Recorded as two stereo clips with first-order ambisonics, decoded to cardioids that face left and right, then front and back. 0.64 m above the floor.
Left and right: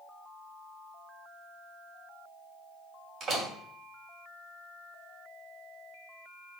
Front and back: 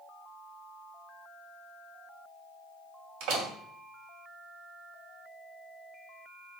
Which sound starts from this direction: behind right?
A door slam, at 3.2 s.